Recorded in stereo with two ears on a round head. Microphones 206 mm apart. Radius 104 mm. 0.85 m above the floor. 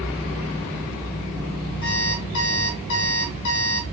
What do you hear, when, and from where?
1.8 s an alarm clock: 70° left (ahead or behind), 3.5 m